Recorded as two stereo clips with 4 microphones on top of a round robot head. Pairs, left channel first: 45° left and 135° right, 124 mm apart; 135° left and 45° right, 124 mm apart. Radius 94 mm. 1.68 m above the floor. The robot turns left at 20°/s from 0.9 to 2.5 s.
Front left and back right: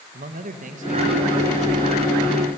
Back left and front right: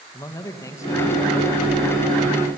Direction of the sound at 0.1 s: 155° right.